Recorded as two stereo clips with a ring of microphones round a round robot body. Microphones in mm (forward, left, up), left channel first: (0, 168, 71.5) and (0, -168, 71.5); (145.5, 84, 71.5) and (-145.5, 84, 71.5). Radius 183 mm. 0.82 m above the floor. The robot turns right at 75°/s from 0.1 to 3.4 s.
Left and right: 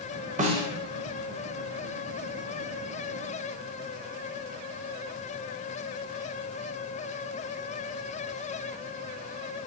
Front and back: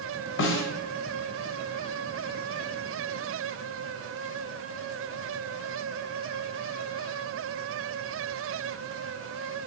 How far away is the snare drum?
About 0.8 m.